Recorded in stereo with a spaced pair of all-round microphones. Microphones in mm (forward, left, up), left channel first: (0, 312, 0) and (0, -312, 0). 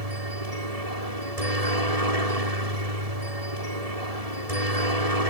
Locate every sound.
0.0 s a helicopter: 70° right (ahead or behind)